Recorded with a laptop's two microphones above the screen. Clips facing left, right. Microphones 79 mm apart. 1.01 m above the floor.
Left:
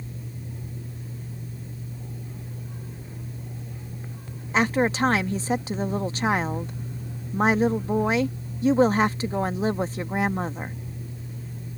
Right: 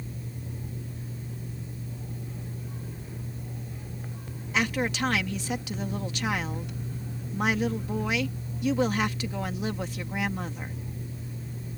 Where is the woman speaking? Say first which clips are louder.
Left 6 dB; 30° left (ahead or behind).